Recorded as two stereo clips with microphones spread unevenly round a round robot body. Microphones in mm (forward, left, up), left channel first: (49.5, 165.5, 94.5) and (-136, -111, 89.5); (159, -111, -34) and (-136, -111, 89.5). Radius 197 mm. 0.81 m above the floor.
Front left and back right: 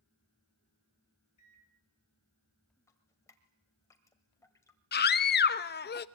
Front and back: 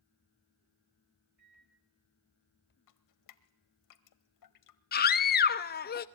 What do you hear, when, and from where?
1.4 s a microwave: 90° left, 3 m
2.9 s dripping: 25° right, 1.4 m
4.9 s a scream: straight ahead, 0.8 m